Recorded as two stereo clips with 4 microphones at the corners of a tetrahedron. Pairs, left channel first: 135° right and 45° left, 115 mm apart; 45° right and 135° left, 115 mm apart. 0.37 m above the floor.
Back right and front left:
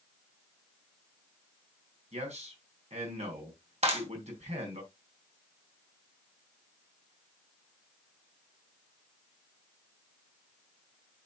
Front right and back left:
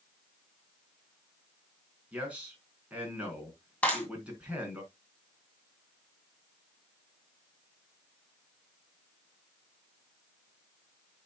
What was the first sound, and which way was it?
A man speaking, 55° left.